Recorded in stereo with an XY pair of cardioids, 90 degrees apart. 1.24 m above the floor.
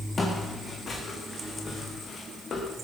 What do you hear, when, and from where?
0.2 s footsteps: 35° left, 4 m; by 2.7 s 55° left, 4 m